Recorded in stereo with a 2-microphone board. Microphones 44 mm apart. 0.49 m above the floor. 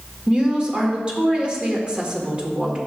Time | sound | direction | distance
0.3 | a woman speaking | 25° right (ahead or behind) | 1.6 m